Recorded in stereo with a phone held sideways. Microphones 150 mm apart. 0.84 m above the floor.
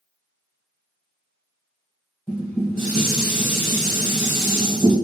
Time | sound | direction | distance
2.3 | dishes clattering | 15° left (ahead or behind) | 2.0 m